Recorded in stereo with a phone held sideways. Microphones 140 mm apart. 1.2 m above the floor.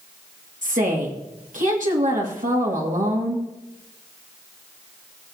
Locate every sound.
0.6 s a woman speaking: 65° right (ahead or behind), 2 m